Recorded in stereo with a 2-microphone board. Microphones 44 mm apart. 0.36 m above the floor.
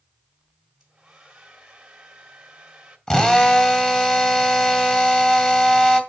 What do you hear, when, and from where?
0.8 s a hair dryer: 15° right (ahead or behind), 1.8 m
3.1 s a drill: 20° left (ahead or behind), 1.9 m